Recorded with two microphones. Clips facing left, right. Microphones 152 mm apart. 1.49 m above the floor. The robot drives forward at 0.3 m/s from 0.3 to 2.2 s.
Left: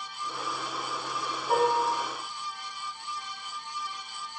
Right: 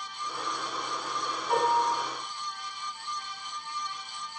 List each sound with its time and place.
1.5 s dishes clattering: 40° left (ahead or behind), 1.1 m; by 1.8 s 35° left (ahead or behind), 1.1 m